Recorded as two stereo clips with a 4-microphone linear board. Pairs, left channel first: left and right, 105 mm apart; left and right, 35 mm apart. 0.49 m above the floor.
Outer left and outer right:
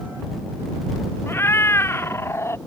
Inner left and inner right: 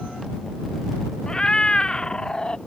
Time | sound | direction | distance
1.3 | a cat meowing | 25° left (ahead or behind) | ?